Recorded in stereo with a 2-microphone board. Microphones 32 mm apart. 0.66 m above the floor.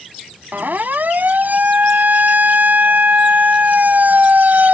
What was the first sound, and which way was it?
A siren, 65° right (ahead or behind).